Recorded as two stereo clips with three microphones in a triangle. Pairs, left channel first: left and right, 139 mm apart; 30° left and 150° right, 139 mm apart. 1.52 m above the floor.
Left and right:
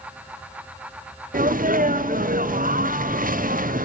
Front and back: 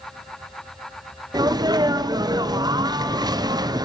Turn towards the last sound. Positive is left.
turn(degrees=-90)